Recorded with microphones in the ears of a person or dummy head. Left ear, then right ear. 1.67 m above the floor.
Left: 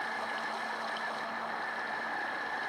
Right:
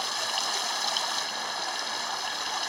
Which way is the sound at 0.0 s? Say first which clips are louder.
Right 6 dB; 80° right.